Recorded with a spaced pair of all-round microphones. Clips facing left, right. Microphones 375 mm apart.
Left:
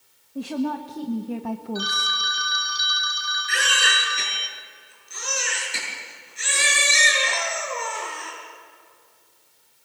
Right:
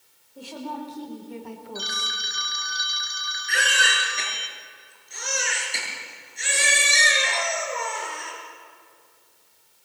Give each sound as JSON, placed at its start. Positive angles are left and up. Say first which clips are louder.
{"t": 0.3, "sound": "a woman speaking", "louder": "left 9 dB", "side_deg": 80, "distance_m": 1.6}
{"t": 1.8, "sound": "a phone ringing", "louder": "left 5 dB", "side_deg": 20, "distance_m": 1.6}
{"t": 3.5, "sound": "a baby crying", "louder": "right 1 dB", "side_deg": 15, "distance_m": 7.5}